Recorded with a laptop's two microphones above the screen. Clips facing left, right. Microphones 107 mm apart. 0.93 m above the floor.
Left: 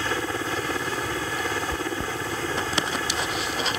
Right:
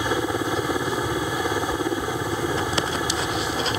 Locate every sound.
0.0 s a helicopter: 15° right (ahead or behind)
1.7 s chewing: 60° left (ahead or behind)